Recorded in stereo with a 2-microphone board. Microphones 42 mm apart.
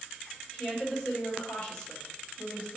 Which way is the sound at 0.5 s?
20° left (ahead or behind).